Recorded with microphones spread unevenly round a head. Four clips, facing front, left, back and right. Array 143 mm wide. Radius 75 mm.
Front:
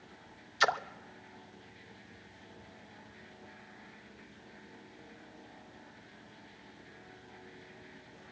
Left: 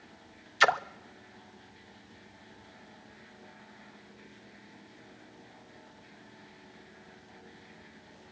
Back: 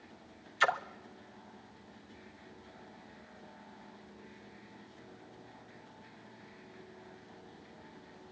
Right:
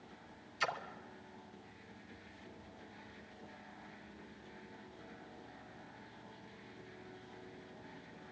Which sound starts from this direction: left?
A splash, at 0.6 s.